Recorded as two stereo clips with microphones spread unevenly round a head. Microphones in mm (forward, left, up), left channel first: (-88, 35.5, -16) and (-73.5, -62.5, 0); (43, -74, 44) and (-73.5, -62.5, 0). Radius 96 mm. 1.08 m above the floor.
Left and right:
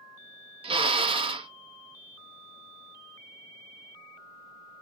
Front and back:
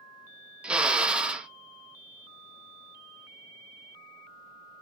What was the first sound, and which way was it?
A drill, 110° right.